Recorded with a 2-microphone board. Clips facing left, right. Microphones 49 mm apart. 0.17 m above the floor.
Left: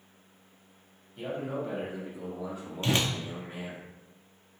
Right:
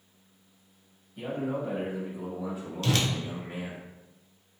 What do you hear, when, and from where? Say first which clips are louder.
1.2 s a man speaking: right 2 dB; 5° right (ahead or behind), 1.8 m; by 3.8 s 20° right (ahead or behind), 1.1 m
2.8 s a whoosh: even; 25° left (ahead or behind), 0.6 m